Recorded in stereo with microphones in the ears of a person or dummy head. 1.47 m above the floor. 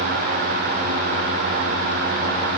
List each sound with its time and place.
Only background noise.